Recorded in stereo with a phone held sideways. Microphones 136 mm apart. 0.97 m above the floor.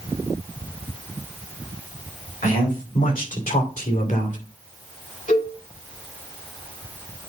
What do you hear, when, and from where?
2.4 s a man speaking: 85° left, 4 m; by 4.4 s 70° left (ahead or behind), 2.5 m
5.3 s a cowbell: 85° left, 5.5 m